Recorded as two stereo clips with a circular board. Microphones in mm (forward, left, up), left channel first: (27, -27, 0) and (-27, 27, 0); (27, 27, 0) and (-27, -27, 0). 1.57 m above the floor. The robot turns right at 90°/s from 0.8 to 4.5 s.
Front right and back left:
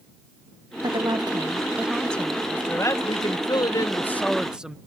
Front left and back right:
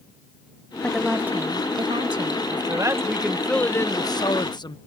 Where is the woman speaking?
120° left; by 2.5 s 90° right.